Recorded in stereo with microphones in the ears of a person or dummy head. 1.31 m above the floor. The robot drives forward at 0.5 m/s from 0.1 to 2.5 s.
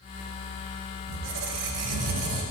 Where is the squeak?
70° right (ahead or behind), 0.9 m; by 2.4 s 55° right (ahead or behind), 1.0 m.